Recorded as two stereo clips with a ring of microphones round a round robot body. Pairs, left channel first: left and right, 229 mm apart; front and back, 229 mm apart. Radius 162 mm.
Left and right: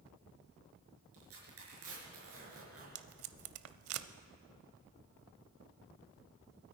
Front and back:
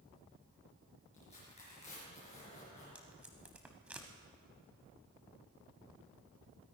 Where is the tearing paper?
70° right, 5.5 m.